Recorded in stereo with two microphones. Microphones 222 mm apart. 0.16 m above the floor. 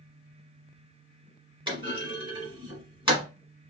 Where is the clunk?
20° right (ahead or behind), 1.2 m.